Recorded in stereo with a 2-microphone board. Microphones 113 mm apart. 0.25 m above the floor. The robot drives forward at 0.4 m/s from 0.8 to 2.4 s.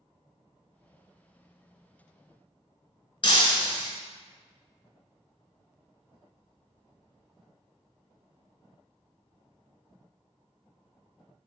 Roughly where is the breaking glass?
Left.